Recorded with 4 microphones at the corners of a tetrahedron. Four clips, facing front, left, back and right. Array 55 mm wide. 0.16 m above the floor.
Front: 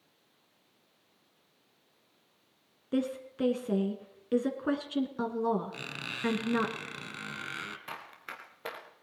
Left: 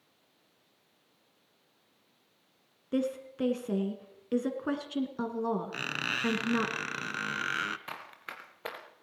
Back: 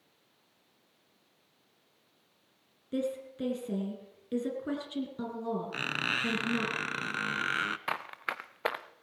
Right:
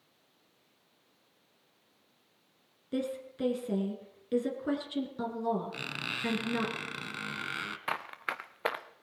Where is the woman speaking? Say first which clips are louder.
Left 3 dB, front 2 dB; 35° left, 1.7 m.